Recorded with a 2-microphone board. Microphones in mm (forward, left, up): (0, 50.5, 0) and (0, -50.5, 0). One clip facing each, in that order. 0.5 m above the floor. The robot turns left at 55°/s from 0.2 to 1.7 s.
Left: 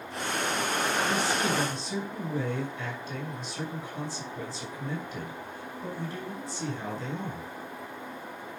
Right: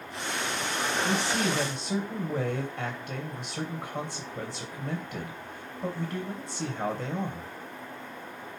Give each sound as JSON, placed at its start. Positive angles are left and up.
{"t": 1.0, "sound": "a man speaking", "azimuth_deg": -75, "distance_m": 2.5}